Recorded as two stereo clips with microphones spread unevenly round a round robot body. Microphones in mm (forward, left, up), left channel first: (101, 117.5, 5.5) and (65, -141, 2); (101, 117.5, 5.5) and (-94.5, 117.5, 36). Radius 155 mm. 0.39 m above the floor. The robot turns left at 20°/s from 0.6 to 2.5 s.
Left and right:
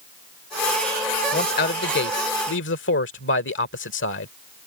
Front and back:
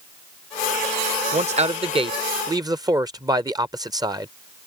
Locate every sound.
1.3 s a man speaking: 130° left; by 4.3 s 105° left